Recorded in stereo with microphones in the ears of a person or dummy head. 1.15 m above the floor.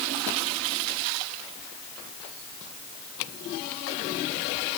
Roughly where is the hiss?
I don't hear a hiss.